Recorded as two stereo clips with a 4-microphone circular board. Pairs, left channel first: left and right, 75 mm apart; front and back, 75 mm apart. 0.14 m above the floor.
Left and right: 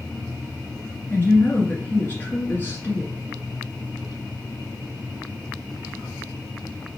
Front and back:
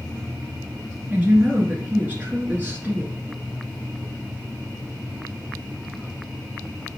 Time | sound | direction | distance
1.1 | a woman speaking | 130° left | 1.7 m